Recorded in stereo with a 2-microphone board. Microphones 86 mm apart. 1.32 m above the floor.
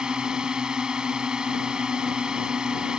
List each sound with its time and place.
0.0 s a drone: 10° right (ahead or behind)